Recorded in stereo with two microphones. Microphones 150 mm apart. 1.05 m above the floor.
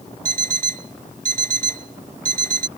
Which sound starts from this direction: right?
An alarm clock, at 0.2 s.